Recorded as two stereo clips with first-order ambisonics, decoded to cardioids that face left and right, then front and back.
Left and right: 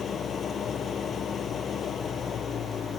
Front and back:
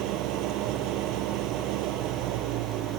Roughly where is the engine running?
Behind left.